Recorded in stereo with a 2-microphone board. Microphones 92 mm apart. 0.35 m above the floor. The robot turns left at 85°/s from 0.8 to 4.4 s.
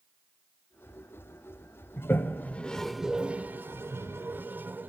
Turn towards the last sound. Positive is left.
turn(degrees=-20)  # may be behind; listen again after turning